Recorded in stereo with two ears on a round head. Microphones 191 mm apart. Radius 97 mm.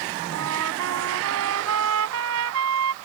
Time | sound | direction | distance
0.3 | a trumpet | 80° right | ?